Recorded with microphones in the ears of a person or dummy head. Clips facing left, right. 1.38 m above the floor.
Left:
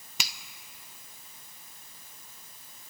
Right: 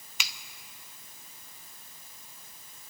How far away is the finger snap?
About 0.7 m.